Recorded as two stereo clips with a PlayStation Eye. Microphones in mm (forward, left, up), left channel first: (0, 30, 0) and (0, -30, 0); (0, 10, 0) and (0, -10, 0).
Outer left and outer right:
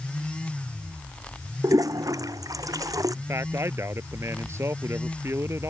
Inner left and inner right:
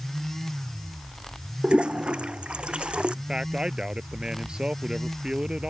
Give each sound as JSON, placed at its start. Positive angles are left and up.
{"t": 1.6, "sound": "a toilet flushing", "side_deg": -70}
{"t": 3.1, "sound": "a man speaking", "side_deg": -50}